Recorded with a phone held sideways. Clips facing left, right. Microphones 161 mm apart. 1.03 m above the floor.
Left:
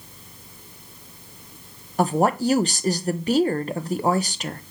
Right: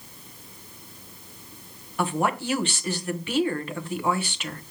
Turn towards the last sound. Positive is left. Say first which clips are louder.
# left 6 dB
turn(degrees=40)  # may be behind; listen again after turning